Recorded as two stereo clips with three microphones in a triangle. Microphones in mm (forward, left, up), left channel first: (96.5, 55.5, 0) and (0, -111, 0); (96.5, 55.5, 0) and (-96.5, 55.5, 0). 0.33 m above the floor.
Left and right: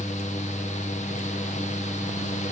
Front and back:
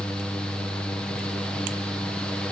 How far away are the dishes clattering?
No dishes clattering in this recording.